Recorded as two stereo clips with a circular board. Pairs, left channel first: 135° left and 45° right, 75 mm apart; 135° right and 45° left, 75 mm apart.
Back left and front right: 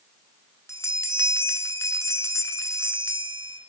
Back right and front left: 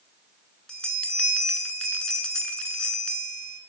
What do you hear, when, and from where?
0.7 s a bell: 155° left, 0.8 m